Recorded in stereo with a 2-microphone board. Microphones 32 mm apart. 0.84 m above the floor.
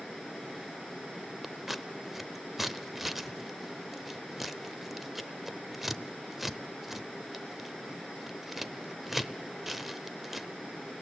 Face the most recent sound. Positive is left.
turn(degrees=-5)  # may be behind; listen again after turning